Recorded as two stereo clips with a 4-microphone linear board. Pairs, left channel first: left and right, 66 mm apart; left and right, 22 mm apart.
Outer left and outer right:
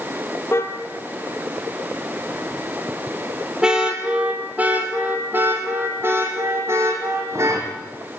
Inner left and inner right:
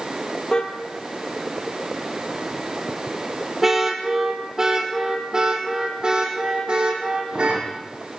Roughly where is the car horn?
Left.